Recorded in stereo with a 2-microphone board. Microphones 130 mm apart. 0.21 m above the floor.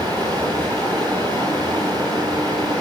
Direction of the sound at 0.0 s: 35° right (ahead or behind).